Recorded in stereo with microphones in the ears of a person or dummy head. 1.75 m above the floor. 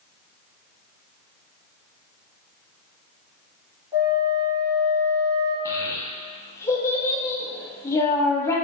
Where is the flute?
15° right (ahead or behind), 2.0 m.